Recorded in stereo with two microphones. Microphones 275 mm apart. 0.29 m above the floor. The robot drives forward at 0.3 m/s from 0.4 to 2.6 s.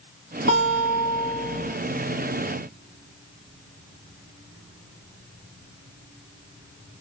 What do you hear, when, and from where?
0.5 s a guitar: 55° right (ahead or behind), 1.5 m; by 1.7 s 50° right (ahead or behind), 1.6 m